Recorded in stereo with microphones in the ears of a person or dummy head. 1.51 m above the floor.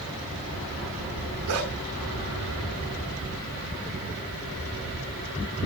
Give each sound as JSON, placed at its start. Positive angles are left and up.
{"t": 1.5, "sound": "a dog barking", "side_deg": -60, "distance_m": 5.0}